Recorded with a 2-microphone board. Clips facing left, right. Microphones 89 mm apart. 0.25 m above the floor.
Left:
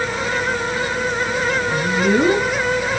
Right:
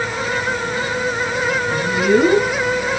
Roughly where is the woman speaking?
Centre.